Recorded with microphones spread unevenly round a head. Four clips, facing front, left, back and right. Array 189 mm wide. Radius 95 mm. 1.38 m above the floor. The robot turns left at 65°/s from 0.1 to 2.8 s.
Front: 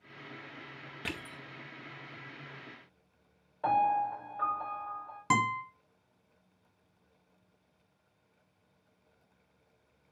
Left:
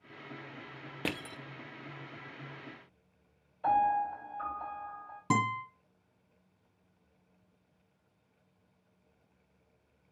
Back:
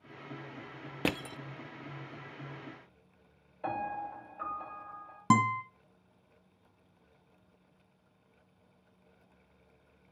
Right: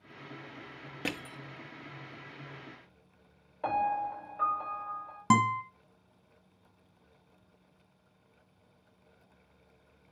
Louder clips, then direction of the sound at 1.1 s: Left 1 dB, back 9 dB; 170° left.